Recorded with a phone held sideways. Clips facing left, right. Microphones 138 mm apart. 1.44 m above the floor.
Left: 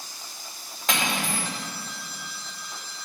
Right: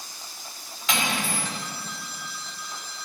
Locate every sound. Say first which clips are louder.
0.9 s cutlery clinking: even; 50° left (ahead or behind), 2.5 m